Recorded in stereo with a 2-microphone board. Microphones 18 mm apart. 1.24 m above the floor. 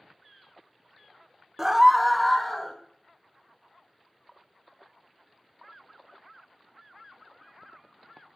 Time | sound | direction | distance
1.6 | a scream | 20° right (ahead or behind) | 0.7 m